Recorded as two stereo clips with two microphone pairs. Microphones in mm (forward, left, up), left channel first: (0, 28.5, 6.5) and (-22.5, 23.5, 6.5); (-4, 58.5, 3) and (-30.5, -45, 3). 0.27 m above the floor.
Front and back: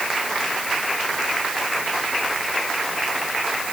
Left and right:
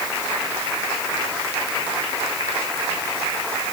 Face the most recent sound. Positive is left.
No sound to turn to.